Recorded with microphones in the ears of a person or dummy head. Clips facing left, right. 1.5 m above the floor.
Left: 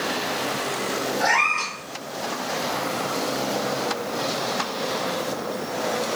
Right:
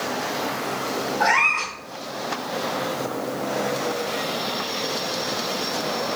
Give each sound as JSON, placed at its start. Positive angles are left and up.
{"t": 1.2, "sound": "a cat meowing", "side_deg": -40, "distance_m": 1.3}